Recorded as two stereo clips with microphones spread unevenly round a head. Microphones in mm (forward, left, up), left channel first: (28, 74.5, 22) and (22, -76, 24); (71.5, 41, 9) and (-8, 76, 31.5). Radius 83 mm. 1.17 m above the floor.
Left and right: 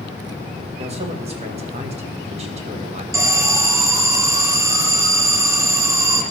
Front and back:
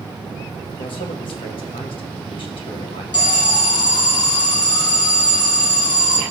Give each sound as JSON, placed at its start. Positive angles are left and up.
{"t": 0.8, "sound": "a man speaking", "azimuth_deg": -45, "distance_m": 1.6}
{"t": 3.1, "sound": "an alarm", "azimuth_deg": -25, "distance_m": 1.3}